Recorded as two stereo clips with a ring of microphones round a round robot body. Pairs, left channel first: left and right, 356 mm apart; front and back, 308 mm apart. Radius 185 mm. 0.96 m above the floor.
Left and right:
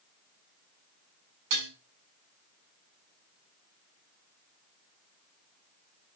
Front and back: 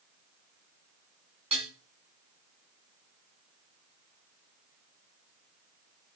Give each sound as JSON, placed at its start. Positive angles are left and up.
{"t": 1.5, "sound": "dishes clattering", "azimuth_deg": -105, "distance_m": 5.0}